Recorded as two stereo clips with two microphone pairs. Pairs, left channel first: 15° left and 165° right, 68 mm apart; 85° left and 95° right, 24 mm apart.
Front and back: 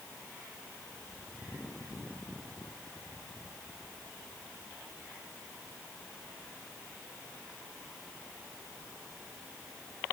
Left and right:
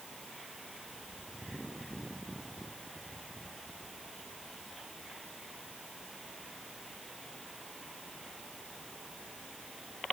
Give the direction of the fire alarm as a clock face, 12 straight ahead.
I don't hear a fire alarm.